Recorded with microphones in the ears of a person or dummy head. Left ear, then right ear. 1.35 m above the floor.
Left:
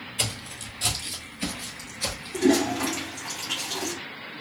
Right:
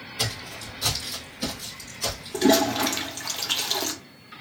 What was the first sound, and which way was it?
Footsteps, 30° left (ahead or behind).